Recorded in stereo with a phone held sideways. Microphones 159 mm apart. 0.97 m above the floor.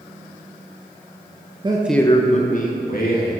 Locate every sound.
1.6 s a man speaking: 35° right (ahead or behind), 0.6 m; by 3.3 s 70° left (ahead or behind), 1.9 m